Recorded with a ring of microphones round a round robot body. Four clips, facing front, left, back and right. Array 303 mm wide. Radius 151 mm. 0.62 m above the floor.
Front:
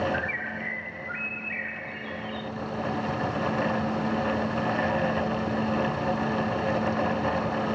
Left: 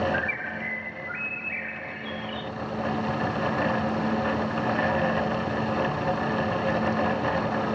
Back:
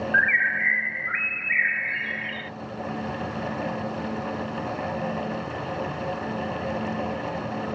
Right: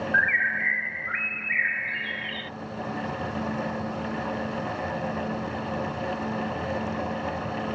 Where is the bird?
145° right.